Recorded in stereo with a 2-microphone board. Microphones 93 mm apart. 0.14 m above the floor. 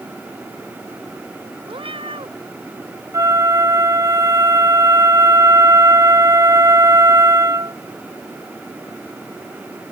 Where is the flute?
35° right (ahead or behind).